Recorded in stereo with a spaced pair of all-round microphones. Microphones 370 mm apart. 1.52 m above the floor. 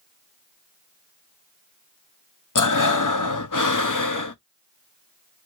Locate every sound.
2.5 s breathing: 50° left (ahead or behind), 0.6 m